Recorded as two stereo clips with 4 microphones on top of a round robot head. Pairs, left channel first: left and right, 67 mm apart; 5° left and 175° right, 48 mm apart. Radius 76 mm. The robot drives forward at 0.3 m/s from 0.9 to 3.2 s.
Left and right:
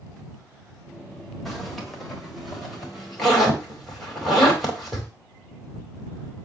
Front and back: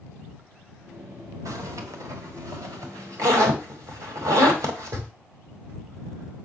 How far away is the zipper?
About 1.5 m.